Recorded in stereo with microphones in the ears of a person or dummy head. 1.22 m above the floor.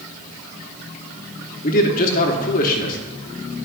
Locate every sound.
1.6 s a man speaking: 45° left (ahead or behind), 1.1 m